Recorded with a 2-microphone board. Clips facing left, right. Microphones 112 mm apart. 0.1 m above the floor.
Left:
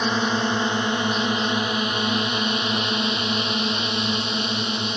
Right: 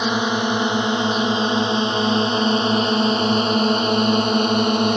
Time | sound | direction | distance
0.0 | a drone | 15° right (ahead or behind) | ?